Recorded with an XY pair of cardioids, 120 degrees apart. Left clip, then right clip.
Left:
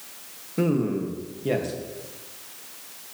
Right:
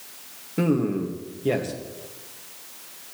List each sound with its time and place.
0.6 s a man speaking: 10° right, 1.6 m